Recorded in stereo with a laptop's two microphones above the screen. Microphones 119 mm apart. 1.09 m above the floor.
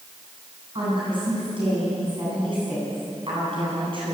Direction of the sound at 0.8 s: 45° right (ahead or behind).